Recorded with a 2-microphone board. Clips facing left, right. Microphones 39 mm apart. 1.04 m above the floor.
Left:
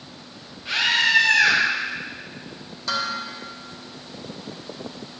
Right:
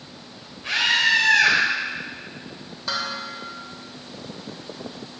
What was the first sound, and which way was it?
A scream, 80° right.